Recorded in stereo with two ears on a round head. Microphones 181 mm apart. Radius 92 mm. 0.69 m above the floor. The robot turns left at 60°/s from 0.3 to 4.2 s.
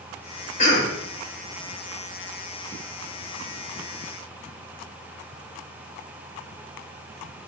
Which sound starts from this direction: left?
A cough, at 0.6 s.